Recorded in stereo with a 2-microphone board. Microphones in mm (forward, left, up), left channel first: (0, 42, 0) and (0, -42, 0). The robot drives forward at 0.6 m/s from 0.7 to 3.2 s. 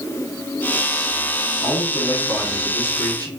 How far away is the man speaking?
About 2.5 m.